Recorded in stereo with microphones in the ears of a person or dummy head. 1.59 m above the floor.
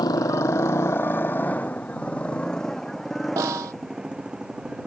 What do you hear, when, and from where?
0.0 s a motorcycle: 20° left (ahead or behind); by 4.9 s 5° right (ahead or behind)
3.4 s a snare drum: 15° right (ahead or behind)